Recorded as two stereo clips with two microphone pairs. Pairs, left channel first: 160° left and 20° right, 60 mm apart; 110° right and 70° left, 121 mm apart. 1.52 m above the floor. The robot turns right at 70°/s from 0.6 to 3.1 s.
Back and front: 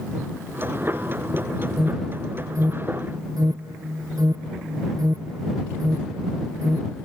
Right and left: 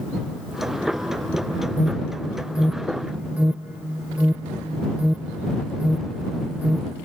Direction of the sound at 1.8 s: 105° right.